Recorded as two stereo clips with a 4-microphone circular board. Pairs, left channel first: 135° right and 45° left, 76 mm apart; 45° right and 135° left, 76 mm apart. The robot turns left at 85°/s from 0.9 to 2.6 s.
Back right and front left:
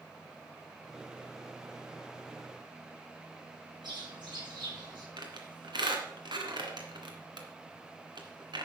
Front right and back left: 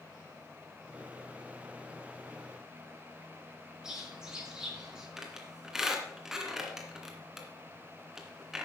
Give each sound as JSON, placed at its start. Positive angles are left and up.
{"t": 3.8, "sound": "a bird", "azimuth_deg": 55, "distance_m": 4.5}
{"t": 5.2, "sound": "a squeak", "azimuth_deg": 50, "distance_m": 2.0}